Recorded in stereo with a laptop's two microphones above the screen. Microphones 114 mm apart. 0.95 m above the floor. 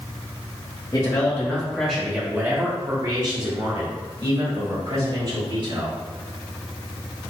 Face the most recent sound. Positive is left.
turn(degrees=-55)  # may be behind; listen again after turning